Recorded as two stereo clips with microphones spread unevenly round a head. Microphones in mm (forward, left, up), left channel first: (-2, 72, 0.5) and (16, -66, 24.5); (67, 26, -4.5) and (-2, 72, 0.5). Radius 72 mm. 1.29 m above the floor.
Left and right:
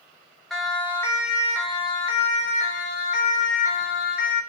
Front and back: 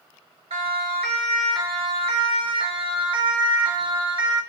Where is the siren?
175° right, 2.5 m; by 4.4 s 125° left, 5 m.